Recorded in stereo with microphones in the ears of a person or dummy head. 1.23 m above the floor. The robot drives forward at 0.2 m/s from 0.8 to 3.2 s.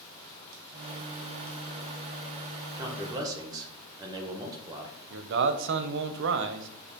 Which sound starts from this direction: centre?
A man speaking, at 2.8 s.